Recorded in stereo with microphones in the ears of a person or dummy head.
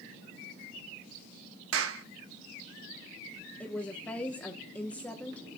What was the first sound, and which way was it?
A clap, 80° right.